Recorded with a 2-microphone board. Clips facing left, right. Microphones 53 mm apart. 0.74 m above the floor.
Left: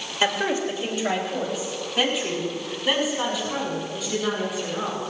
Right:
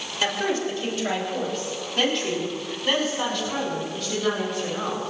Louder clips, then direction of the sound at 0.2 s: Left 2 dB; 25° left (ahead or behind).